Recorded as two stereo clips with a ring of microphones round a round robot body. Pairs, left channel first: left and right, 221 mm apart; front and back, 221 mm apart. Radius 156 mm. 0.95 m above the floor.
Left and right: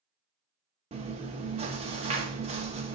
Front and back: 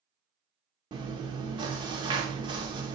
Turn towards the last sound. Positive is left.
turn(degrees=-125)